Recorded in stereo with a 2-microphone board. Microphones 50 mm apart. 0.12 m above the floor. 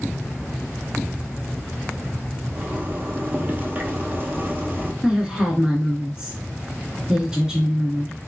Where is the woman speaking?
10° right (ahead or behind), 1.3 m.